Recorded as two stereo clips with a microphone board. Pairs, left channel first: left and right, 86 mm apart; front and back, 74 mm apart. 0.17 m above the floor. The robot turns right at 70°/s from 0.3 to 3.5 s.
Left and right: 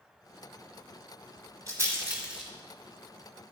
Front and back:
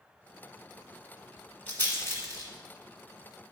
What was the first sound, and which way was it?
A rattle, 60° right.